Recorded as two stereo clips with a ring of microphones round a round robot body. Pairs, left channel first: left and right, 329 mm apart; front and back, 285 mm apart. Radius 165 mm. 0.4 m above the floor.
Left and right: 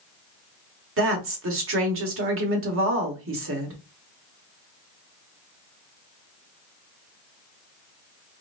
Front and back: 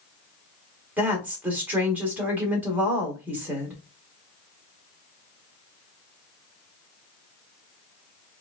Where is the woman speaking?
100° right, 1.3 m.